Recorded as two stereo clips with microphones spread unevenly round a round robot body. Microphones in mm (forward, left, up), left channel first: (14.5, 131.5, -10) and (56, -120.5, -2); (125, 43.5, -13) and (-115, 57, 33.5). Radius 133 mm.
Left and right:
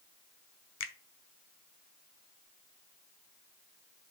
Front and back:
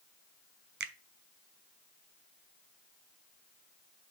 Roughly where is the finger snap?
Behind left.